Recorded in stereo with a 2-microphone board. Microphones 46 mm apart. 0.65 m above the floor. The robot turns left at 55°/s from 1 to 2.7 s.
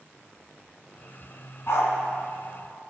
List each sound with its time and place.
1.7 s a dog barking: 60° left (ahead or behind), 2 m; by 1.9 s 75° left (ahead or behind), 2 m